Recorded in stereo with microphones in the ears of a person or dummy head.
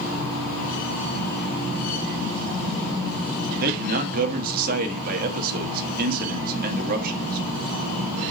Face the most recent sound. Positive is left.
turn(degrees=-50)  # may be behind; listen again after turning